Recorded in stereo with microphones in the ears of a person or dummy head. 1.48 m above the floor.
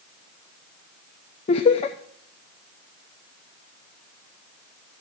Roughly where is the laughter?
Left.